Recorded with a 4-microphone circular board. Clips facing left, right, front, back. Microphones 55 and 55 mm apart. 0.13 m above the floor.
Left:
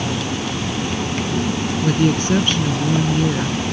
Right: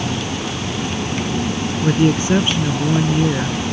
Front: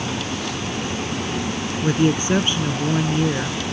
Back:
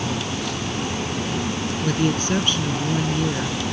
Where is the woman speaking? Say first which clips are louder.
Right 2 dB, front 4 dB; 40° right.